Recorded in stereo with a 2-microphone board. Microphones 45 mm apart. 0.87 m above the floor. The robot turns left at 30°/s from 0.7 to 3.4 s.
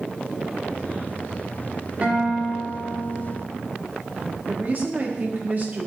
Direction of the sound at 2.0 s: 35° right.